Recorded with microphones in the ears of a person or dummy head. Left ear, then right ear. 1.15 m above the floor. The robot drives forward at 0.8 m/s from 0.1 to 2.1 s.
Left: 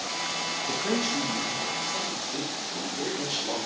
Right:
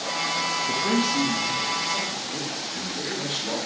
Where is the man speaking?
5° right (ahead or behind), 0.8 m.